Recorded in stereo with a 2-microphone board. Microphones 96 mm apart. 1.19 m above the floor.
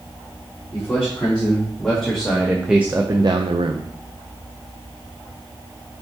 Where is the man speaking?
10° left (ahead or behind), 3.5 m; by 3.9 s 60° right (ahead or behind), 0.9 m.